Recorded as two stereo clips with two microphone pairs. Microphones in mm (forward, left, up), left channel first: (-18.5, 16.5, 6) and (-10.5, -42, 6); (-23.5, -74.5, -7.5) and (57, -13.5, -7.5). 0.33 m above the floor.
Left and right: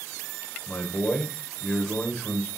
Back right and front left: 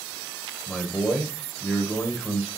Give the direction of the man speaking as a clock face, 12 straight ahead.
7 o'clock.